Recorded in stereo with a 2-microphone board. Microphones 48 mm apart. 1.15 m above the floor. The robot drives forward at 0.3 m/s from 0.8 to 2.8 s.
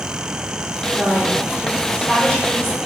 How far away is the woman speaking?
About 3.5 m.